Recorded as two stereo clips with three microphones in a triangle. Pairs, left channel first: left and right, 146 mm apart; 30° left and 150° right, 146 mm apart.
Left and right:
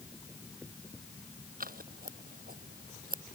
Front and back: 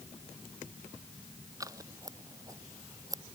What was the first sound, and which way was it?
Scissors, 85° right.